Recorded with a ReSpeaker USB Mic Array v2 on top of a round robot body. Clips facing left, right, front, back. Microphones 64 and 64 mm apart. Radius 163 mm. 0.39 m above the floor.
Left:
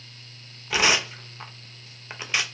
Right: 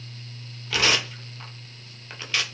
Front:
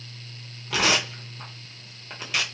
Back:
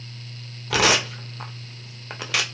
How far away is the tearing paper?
About 0.6 m.